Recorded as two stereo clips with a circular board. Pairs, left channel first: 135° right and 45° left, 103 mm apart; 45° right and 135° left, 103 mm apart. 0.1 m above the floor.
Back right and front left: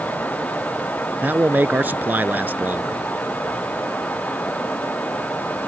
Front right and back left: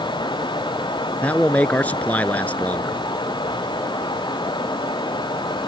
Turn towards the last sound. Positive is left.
turn(degrees=5)